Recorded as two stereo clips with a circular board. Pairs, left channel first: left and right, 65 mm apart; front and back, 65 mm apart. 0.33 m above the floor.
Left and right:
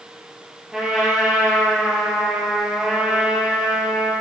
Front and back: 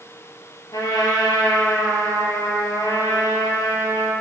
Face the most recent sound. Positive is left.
turn(degrees=-10)